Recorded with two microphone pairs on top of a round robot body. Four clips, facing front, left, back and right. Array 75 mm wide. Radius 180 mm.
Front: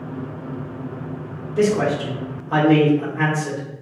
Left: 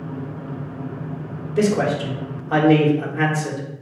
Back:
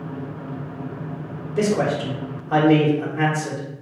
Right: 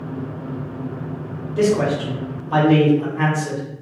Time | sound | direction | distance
1.6 | a man speaking | 90° left | 1.3 m